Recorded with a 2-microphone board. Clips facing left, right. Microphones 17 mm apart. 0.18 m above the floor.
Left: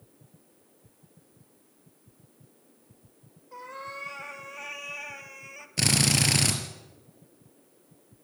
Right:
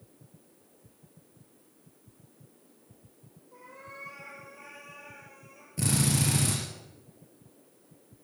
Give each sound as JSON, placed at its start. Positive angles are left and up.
{"t": 3.5, "sound": "a cat meowing", "side_deg": 75, "distance_m": 3.0}
{"t": 5.8, "sound": "a drill", "side_deg": 60, "distance_m": 3.5}